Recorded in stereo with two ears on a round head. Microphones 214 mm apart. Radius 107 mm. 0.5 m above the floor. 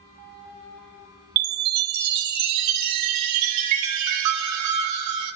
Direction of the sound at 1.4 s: 75° right (ahead or behind).